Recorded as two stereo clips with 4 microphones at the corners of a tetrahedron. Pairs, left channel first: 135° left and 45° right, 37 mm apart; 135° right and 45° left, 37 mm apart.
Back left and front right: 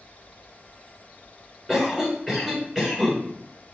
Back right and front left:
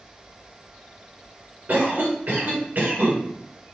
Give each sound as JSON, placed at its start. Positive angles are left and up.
{"t": 1.7, "sound": "a cough", "azimuth_deg": 35, "distance_m": 1.9}